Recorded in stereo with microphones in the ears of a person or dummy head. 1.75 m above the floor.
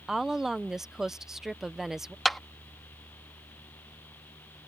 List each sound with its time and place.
0.1 s a woman speaking: 5° right (ahead or behind)
2.2 s a clap: centre (ahead or behind)